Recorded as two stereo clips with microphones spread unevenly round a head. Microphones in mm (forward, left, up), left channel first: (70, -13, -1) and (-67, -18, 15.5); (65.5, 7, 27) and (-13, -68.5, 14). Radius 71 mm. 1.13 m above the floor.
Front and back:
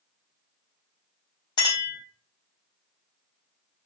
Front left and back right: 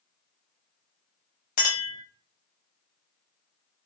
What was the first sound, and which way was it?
A clink, 65° left.